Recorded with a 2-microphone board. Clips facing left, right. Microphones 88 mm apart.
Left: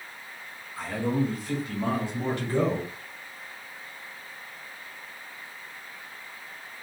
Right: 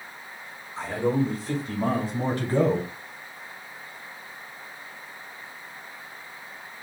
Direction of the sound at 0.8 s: 20° right (ahead or behind).